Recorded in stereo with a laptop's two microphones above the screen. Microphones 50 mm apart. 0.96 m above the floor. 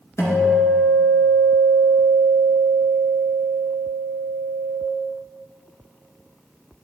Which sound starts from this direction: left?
A guitar, at 0.2 s.